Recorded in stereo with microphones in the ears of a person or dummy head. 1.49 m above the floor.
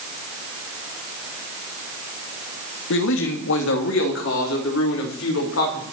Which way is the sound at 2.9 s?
70° left (ahead or behind).